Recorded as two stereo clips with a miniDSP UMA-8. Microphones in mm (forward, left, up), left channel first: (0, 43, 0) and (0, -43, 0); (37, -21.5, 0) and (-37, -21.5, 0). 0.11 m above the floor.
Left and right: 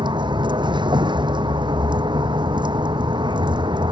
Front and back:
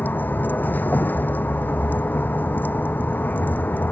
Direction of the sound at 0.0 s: 65° right.